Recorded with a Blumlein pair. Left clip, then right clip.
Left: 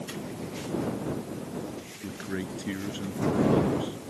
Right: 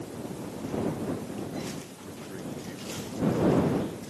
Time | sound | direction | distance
2.0 | a man speaking | 60° left | ?